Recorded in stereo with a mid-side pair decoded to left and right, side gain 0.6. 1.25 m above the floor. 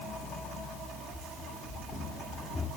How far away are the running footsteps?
About 7 m.